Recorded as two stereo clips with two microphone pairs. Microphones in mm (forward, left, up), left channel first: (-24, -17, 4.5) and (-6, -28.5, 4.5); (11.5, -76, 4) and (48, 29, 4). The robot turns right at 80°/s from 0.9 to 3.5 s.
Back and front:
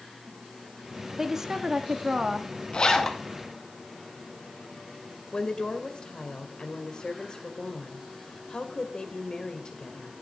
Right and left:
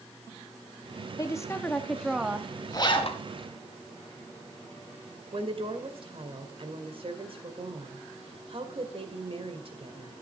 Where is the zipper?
165° right, 2.5 m; by 3.2 s 125° right, 2.5 m.